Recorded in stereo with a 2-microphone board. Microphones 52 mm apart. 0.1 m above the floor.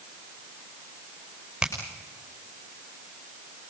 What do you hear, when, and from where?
1.6 s a finger snap: 15° right (ahead or behind), 6 m